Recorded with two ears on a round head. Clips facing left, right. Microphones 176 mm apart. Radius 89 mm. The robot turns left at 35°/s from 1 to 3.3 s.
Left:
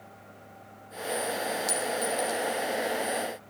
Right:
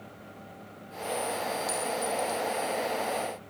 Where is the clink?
35° left (ahead or behind), 3 m; by 2.4 s 10° left (ahead or behind), 3 m.